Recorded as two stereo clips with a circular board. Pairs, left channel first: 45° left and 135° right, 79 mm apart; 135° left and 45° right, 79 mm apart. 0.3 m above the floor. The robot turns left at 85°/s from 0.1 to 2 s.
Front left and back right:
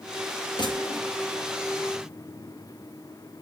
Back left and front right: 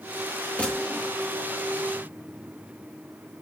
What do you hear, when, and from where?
0.6 s a gunshot: 65° left, 5.5 m; by 1.1 s 20° left, 5.5 m